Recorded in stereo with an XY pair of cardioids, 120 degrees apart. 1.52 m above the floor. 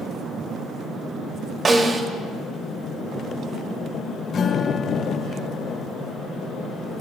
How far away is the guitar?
About 4 m.